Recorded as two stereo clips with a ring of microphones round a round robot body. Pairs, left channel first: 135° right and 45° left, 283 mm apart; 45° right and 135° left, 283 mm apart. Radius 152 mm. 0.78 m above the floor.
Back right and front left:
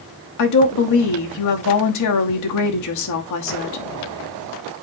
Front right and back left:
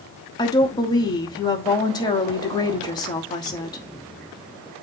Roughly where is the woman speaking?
Behind right.